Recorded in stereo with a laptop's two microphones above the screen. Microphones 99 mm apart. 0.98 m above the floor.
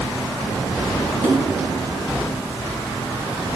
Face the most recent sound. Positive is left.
turn(degrees=-30)  # may be behind; listen again after turning